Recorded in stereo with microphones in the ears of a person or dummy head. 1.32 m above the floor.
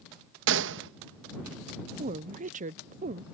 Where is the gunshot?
70° right (ahead or behind).